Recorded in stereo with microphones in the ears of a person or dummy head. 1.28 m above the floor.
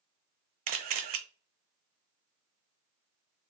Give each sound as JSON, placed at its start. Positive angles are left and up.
{"t": 0.7, "sound": "a camera shutter", "side_deg": -45, "distance_m": 0.5}